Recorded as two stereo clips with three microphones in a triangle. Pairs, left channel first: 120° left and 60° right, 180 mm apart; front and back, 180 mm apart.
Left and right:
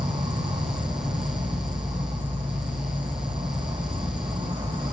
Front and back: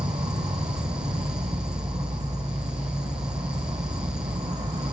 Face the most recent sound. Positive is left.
turn(degrees=-125)